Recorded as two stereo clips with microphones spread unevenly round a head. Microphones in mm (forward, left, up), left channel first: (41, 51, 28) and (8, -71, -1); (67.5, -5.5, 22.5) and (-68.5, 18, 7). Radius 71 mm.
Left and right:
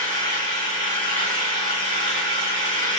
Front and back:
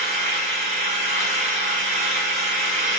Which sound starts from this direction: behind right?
An engine running, at 0.0 s.